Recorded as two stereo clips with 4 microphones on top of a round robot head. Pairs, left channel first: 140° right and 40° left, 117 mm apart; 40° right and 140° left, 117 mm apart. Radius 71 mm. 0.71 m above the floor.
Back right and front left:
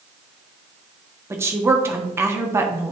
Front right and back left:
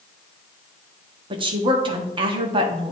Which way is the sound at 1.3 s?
105° left.